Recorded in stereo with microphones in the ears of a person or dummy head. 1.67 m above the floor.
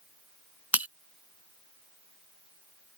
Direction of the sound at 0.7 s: 5° right (ahead or behind).